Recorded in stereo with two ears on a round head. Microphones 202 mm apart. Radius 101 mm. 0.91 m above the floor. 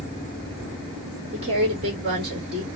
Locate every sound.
1.3 s a woman speaking: 25° right (ahead or behind), 3 m